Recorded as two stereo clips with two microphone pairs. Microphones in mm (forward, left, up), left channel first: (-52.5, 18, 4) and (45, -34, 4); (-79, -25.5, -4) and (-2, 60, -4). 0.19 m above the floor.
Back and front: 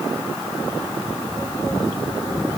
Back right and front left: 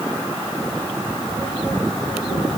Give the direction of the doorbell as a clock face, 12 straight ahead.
I don't hear a doorbell.